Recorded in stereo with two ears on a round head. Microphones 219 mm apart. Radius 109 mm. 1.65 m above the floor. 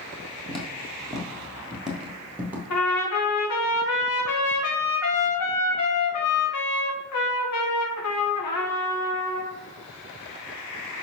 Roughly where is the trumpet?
Left.